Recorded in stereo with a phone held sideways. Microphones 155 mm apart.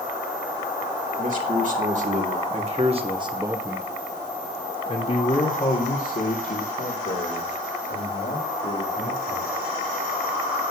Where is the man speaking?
60° right (ahead or behind), 3 m; by 9.5 s 80° left, 5 m.